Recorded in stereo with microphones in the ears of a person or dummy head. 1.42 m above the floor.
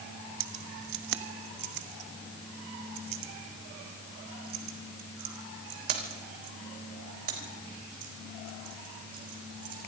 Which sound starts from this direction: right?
Keys jangling, at 0.4 s.